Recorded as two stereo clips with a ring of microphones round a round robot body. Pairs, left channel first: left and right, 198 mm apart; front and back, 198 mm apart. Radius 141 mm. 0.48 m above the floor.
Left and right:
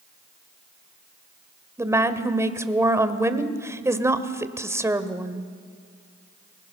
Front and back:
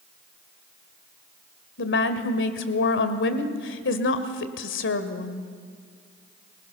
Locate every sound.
1.8 s a woman speaking: 15° right, 1.8 m